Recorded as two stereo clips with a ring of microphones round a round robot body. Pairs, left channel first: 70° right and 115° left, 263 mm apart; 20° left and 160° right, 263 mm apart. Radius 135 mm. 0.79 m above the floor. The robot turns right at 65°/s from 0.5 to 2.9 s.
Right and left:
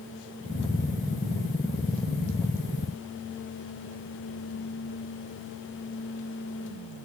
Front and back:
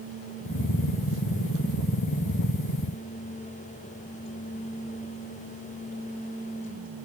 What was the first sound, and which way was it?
Only background noise.